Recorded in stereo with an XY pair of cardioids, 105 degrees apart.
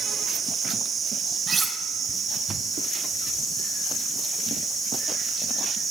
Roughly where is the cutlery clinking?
Ahead right.